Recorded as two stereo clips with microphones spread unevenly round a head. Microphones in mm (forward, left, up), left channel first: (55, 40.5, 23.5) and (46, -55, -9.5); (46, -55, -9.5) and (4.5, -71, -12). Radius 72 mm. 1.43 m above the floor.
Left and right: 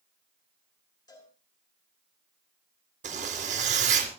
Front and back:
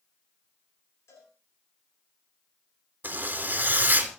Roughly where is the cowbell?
Ahead left.